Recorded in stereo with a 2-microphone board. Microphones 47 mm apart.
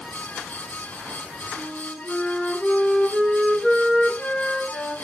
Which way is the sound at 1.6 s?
5° left (ahead or behind).